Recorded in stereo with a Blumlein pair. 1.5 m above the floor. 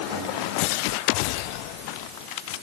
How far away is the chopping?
I don't hear chopping.